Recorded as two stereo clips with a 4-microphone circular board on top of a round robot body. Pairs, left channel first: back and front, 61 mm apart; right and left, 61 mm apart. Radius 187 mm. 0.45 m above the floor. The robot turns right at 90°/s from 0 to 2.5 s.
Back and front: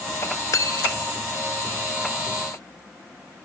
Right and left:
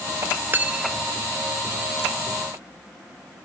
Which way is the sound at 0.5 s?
145° left.